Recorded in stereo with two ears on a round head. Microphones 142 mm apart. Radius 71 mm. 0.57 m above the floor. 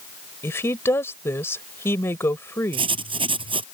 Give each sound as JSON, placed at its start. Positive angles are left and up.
{"t": 0.4, "sound": "a woman speaking", "side_deg": 15}
{"t": 2.7, "sound": "writing", "side_deg": -35}